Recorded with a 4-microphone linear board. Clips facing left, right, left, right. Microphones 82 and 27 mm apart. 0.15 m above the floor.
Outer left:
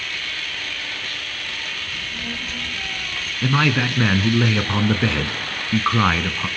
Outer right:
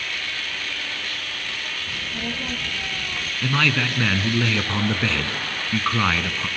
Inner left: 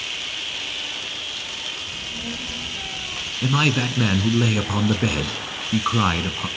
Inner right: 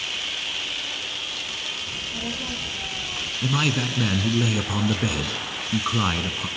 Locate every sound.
1.9 s a child speaking: 35° right (ahead or behind), 3 m; by 3.3 s 50° right (ahead or behind), 3 m
3.4 s a man speaking: 20° left (ahead or behind), 1.4 m